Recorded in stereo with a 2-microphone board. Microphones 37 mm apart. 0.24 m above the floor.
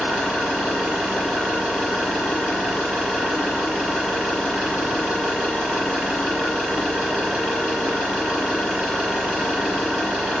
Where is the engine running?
35° right (ahead or behind), 4 m.